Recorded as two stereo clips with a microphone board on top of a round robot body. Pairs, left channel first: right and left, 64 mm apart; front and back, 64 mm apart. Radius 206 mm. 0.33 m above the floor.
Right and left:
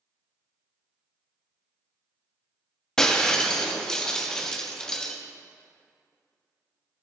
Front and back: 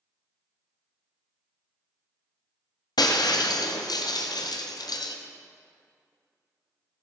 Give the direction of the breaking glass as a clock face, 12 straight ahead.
12 o'clock.